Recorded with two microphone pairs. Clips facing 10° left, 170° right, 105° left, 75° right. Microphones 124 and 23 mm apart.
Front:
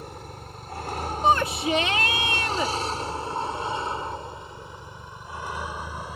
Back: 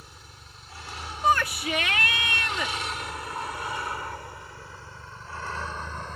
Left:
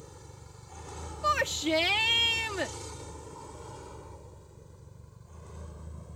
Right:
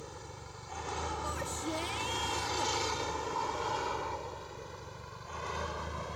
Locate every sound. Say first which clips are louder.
0.0 s a vehicle: front 12 dB, right 4 dB; 20° right; by 6.2 s 70° right
1.2 s a shout: front 2 dB, left 9 dB; 70° left